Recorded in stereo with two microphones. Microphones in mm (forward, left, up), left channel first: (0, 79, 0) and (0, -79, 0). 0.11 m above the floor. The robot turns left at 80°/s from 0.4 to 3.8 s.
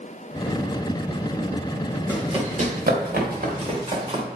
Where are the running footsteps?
15° right (ahead or behind), 4 m; by 4.2 s 30° right (ahead or behind), 3 m.